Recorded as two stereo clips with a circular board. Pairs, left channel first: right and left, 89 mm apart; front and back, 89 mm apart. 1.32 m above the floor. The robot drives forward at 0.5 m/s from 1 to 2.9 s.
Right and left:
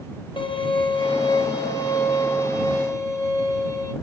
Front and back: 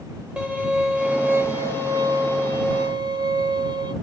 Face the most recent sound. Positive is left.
turn(degrees=-145)